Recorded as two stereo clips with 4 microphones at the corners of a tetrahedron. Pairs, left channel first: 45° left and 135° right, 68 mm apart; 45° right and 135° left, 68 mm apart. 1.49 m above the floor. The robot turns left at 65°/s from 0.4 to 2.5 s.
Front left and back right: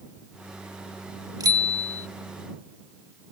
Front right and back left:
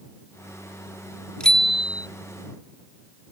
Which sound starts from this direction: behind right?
A bicycle bell, at 1.4 s.